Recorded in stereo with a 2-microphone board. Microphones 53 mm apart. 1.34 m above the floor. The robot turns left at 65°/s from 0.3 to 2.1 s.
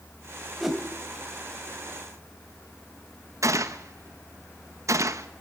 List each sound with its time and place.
0.6 s a whoosh: centre (ahead or behind), 2.5 m; by 0.8 s 10° right (ahead or behind), 2.5 m
3.4 s a gunshot: 70° right (ahead or behind), 1.1 m